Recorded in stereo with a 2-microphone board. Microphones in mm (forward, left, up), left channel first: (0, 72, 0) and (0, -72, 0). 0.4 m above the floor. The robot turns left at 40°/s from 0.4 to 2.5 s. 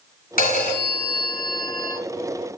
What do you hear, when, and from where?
0.4 s a phone ringing: 85° left, 1.4 m; by 2.0 s 20° left, 1.4 m